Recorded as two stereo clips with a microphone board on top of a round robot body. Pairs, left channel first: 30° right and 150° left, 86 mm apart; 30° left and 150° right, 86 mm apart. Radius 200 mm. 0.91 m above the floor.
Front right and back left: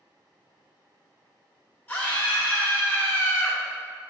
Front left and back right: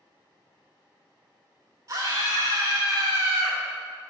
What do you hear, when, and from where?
1.9 s a scream: 100° right, 2.5 m